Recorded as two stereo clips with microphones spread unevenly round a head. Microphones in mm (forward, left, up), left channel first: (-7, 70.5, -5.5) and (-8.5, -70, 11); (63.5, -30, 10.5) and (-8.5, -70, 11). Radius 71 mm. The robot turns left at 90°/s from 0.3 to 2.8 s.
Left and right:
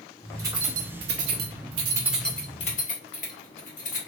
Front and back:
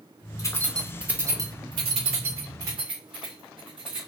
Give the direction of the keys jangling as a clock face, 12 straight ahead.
1 o'clock.